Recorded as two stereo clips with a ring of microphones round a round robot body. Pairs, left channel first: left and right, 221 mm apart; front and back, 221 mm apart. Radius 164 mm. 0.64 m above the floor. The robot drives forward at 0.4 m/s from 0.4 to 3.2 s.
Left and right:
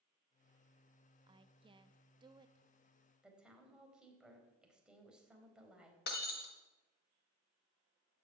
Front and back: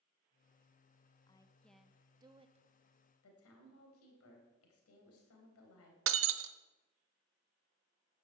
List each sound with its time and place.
1.3 s a woman speaking: 45° right, 0.7 m; by 2.7 s 150° right, 0.7 m
3.2 s a woman speaking: 5° right, 4 m
6.1 s breaking glass: 150° left, 0.8 m